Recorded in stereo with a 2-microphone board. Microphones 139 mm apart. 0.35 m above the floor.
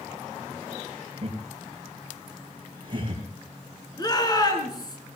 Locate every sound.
1.2 s laughter: 45° right (ahead or behind), 5.5 m; by 3.2 s 35° right (ahead or behind), 6.5 m
4.0 s a shout: 30° left (ahead or behind), 4 m